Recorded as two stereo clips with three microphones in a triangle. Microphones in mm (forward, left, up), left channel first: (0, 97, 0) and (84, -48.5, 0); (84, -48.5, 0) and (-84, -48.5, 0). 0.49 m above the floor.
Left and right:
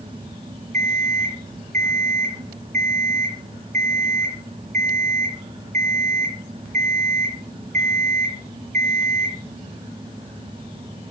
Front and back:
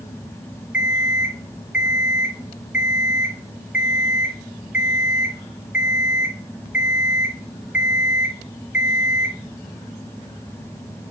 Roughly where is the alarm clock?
Right.